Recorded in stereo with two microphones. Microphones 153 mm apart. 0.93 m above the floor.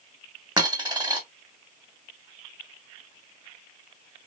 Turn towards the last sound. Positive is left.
turn(degrees=-25)  # may be behind; listen again after turning